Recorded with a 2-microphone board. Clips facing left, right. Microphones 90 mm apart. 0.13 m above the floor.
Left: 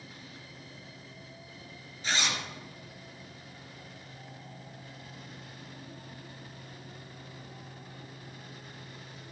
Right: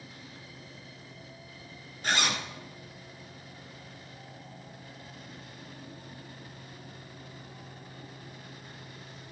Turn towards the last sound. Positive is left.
turn(degrees=-50)  # may be behind; listen again after turning